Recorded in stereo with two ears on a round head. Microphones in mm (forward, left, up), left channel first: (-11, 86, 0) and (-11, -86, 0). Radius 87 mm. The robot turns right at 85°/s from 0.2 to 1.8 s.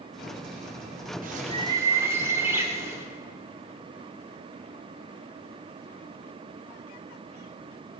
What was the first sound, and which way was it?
A bird, 65° right.